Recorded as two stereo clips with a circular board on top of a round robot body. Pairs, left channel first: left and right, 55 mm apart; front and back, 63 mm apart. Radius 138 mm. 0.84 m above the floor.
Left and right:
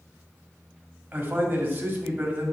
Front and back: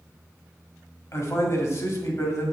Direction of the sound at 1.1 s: 30° right.